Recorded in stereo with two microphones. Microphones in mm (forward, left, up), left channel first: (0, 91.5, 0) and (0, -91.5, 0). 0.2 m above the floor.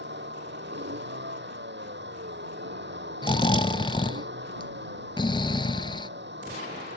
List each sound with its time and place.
0.0 s a vehicle: 80° right
3.2 s snoring: 25° left (ahead or behind)